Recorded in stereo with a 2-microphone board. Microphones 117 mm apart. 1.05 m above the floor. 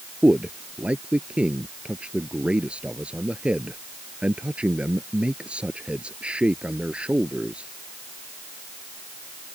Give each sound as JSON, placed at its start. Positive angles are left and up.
{"t": 0.2, "sound": "a man speaking", "side_deg": -10}